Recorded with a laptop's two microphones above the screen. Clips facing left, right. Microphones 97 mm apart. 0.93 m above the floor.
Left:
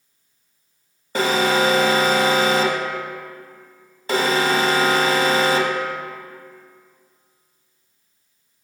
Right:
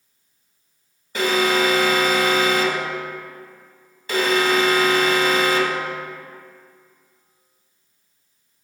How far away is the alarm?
About 1.1 m.